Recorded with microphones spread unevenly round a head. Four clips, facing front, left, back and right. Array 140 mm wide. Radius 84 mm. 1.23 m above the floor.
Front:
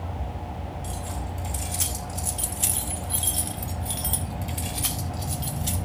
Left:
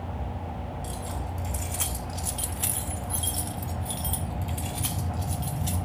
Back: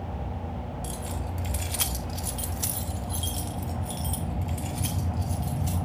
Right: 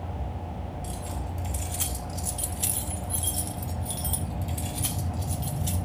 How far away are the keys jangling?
About 2.5 m.